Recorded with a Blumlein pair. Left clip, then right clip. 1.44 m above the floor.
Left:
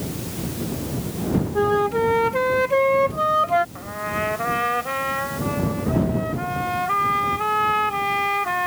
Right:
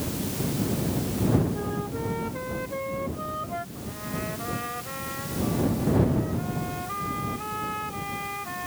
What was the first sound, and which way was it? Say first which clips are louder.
A flute: left 13 dB; 35° left.